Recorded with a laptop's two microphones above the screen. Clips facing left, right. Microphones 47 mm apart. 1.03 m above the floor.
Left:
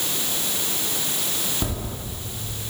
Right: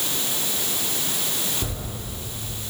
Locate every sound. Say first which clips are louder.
1.6 s footsteps: left 3 dB; 60° left (ahead or behind), 2 m